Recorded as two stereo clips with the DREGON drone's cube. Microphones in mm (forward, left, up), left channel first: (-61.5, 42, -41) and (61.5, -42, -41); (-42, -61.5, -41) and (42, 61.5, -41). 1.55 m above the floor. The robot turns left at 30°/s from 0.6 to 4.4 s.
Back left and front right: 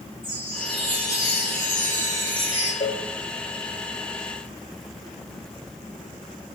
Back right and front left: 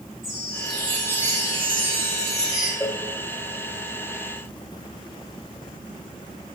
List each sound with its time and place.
0.2 s a chime: 35° right, 3.5 m; by 2.7 s 95° right, 3.5 m
2.8 s a cowbell: straight behind, 1.2 m; by 3.0 s 175° left, 1.2 m